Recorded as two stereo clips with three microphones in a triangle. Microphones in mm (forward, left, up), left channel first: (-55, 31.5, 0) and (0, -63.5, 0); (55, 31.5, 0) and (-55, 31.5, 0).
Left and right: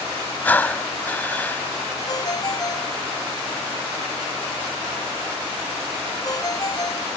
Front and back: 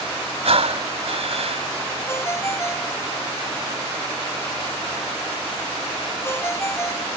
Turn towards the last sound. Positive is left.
turn(degrees=65)